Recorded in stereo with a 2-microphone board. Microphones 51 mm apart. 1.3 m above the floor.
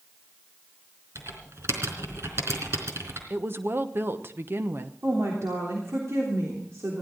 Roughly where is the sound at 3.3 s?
Right.